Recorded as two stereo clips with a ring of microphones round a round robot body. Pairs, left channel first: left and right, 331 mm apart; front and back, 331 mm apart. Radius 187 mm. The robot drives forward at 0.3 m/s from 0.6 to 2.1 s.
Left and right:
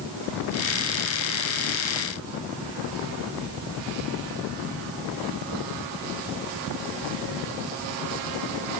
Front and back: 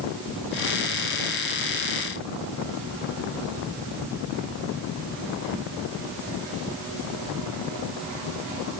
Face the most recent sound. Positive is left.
No sound to turn to.